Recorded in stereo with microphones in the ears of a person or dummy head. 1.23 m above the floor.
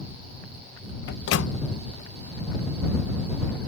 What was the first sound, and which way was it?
A microwave, 75° left (ahead or behind).